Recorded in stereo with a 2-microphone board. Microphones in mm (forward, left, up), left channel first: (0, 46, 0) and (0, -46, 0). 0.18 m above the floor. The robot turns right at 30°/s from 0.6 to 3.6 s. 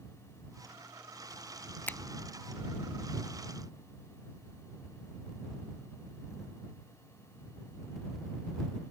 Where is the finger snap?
20° left (ahead or behind).